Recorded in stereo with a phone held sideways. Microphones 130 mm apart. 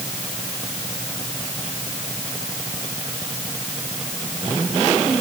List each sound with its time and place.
Only background noise.